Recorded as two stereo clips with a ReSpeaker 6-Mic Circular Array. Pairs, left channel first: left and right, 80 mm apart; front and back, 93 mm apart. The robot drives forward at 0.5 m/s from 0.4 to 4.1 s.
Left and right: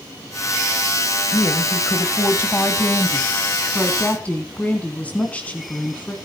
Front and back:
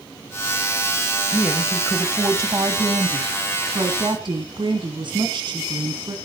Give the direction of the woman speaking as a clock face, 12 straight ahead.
8 o'clock.